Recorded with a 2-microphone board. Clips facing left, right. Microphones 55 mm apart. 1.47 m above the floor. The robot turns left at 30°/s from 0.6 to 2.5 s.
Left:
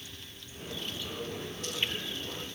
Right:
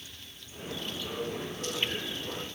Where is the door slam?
No door slam in this recording.